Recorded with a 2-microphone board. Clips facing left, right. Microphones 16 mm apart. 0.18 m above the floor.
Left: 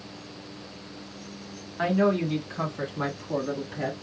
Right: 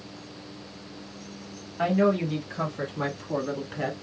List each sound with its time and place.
1.8 s a woman speaking: 25° left (ahead or behind), 1.8 m; by 3.9 s 10° right (ahead or behind), 1.2 m